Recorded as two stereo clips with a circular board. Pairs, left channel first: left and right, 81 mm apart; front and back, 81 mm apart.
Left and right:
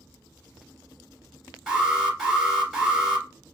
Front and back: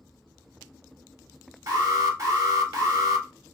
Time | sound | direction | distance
1.7 | an alarm | 175° right | 1.7 m